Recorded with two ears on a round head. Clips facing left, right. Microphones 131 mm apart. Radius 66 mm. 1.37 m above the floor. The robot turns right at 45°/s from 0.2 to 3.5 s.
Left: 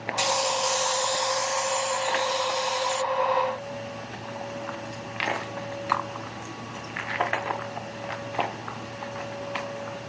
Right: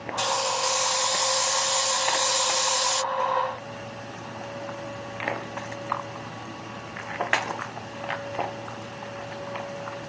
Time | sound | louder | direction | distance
0.2 | a hiss | left 1 dB | 165° left | ?